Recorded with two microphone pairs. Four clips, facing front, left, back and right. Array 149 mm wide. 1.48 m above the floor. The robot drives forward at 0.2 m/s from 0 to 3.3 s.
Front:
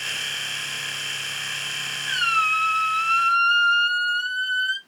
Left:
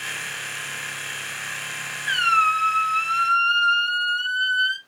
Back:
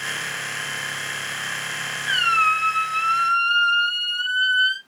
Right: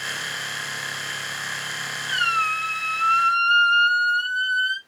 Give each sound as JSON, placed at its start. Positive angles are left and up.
{"t": 2.1, "sound": "a squeak", "azimuth_deg": 110, "distance_m": 2.5}